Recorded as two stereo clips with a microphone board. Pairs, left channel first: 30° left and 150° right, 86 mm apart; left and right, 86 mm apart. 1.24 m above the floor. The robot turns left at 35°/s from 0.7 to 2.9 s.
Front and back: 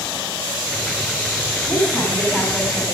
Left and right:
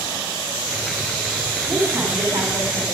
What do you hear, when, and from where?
1.7 s a woman speaking: 10° right, 3.5 m; by 2.8 s 50° right, 3.5 m